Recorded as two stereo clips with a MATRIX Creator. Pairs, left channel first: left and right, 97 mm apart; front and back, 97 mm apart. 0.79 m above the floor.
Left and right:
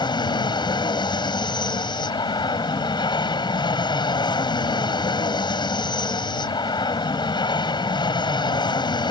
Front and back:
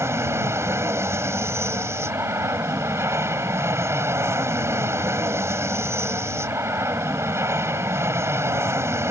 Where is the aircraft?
120° left.